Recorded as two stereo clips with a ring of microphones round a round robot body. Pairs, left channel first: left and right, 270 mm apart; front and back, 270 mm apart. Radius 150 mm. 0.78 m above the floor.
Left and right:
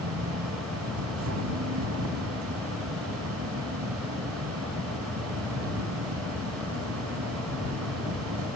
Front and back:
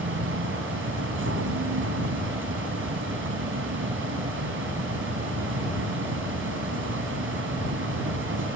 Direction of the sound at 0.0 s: 135° right.